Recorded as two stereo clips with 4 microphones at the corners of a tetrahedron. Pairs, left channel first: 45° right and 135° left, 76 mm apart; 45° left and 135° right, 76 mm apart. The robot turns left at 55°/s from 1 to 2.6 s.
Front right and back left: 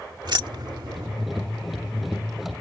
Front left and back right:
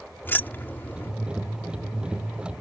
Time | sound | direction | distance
0.2 | keys jangling | 110° left | ?